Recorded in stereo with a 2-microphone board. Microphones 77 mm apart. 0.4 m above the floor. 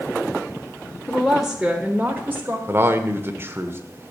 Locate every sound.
1.1 s a woman speaking: 5° left (ahead or behind), 0.9 m; by 2.6 s 30° right (ahead or behind), 1.4 m
2.7 s a man speaking: 30° right (ahead or behind), 0.9 m